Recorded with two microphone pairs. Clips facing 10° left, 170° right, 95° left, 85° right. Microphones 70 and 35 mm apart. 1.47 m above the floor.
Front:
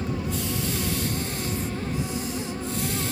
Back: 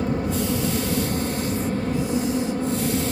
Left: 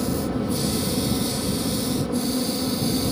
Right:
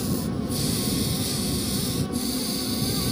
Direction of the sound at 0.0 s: 145° left.